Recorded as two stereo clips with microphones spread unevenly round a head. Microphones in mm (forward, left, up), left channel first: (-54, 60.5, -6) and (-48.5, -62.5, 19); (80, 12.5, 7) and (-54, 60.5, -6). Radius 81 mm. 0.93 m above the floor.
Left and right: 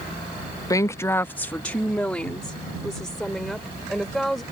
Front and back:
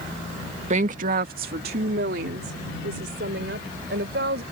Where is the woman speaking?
140° left; by 4.4 s 175° right.